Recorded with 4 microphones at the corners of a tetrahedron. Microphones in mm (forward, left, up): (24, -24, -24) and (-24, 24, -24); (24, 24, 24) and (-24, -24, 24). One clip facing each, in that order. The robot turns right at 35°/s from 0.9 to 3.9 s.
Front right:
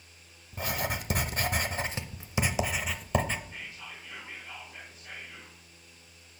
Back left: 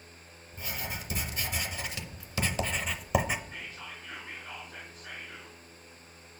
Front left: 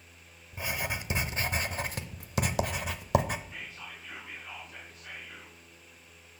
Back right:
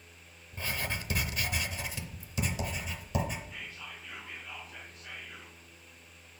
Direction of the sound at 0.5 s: 30° right.